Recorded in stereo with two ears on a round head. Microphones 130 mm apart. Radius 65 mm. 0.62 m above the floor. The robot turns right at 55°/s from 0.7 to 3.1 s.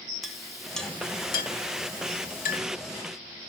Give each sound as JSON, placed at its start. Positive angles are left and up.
{"t": 0.2, "sound": "a clink", "side_deg": 0, "distance_m": 1.1}